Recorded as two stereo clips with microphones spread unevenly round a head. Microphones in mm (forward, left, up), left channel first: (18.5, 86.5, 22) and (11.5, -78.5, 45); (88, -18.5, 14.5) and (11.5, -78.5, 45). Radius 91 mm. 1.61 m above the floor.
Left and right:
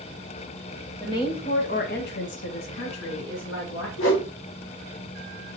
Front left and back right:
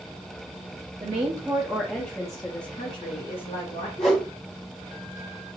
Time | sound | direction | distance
1.0 | a woman speaking | 160° left | 0.8 m
4.0 | a whoosh | 105° left | 1.0 m